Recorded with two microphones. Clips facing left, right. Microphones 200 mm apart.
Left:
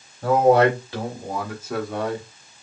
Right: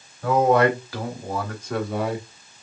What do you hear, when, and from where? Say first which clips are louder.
0.2 s a man speaking: left 2 dB; 40° left (ahead or behind), 1.7 m; by 2.6 s 25° right (ahead or behind), 1.4 m